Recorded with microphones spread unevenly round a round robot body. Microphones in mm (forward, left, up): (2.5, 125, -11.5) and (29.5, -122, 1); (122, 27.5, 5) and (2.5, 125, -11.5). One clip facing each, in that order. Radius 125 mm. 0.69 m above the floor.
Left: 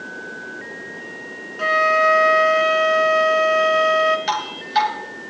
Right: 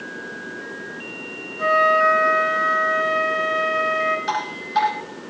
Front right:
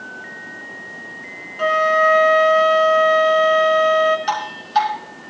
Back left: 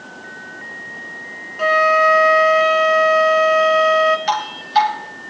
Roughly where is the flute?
Ahead left.